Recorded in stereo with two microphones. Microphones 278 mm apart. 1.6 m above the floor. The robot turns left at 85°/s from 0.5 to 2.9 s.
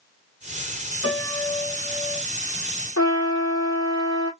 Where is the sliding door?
No sliding door in this recording.